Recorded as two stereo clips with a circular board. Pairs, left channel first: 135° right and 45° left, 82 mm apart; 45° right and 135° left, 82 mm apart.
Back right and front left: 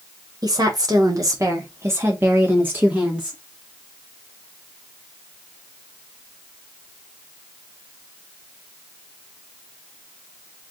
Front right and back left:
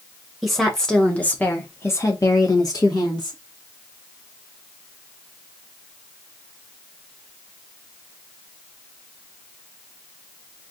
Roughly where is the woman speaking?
Ahead left.